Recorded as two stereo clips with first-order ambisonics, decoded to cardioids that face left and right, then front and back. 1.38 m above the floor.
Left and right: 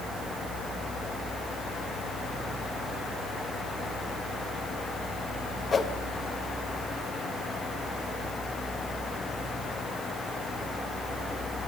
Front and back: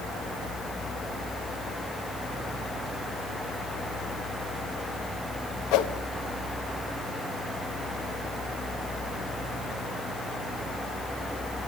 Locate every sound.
5.7 s a whoosh: 20° left, 1.1 m